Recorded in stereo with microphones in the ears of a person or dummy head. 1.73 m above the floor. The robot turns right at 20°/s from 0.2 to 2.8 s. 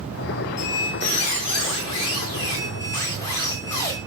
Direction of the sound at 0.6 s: 115° left.